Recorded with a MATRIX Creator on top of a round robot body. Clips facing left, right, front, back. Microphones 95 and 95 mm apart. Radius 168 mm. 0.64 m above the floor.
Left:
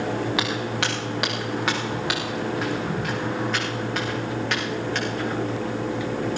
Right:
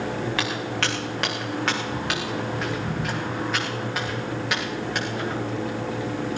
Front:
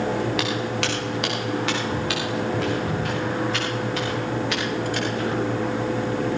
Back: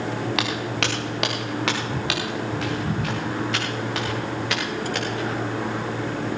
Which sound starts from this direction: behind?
Footsteps, at 0.4 s.